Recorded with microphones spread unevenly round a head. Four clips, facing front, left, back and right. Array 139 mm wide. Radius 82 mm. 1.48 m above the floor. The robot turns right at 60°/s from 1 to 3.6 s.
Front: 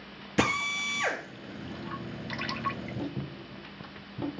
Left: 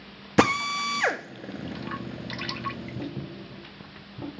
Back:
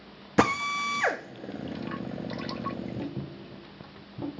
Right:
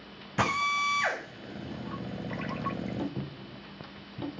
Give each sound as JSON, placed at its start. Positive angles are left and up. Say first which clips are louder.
{"t": 0.4, "sound": "a drill", "louder": "left 5 dB, back 4 dB", "azimuth_deg": 125, "distance_m": 1.5}